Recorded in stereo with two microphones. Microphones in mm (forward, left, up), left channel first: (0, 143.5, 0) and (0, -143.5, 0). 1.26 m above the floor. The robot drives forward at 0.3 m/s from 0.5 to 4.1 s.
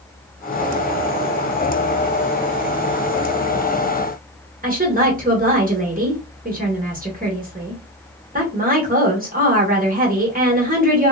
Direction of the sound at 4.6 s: 30° right (ahead or behind).